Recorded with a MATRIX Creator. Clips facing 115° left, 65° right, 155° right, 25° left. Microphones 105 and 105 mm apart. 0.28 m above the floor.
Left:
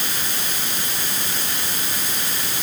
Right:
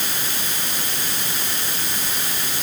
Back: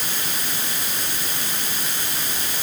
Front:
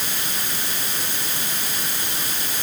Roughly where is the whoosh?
No whoosh in this recording.